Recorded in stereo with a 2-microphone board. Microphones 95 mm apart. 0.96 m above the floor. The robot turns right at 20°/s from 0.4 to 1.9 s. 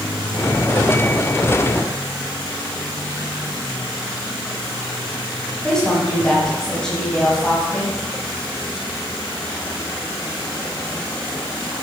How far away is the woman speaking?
About 6.5 m.